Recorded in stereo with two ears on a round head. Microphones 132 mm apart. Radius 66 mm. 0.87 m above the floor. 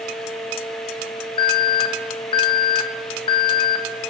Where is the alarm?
30° left (ahead or behind), 1.1 m.